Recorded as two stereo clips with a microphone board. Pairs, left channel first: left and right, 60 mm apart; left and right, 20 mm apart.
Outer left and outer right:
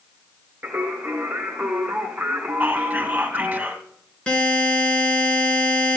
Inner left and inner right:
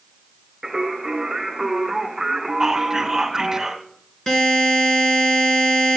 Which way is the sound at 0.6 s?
30° right (ahead or behind).